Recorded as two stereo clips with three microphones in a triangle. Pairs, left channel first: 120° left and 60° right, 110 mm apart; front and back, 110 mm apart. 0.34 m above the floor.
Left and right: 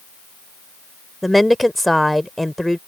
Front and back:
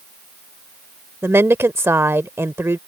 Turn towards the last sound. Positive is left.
turn(degrees=-150)